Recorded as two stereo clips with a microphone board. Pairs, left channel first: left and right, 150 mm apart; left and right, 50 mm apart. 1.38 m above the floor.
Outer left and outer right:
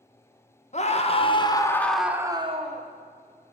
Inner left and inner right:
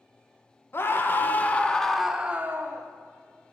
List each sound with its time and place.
0.7 s a scream: 45° left (ahead or behind), 1.5 m; by 2.9 s 50° right (ahead or behind), 1.0 m